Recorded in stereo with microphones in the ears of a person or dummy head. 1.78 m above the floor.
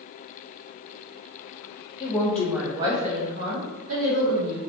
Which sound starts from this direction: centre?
A woman speaking, at 2.0 s.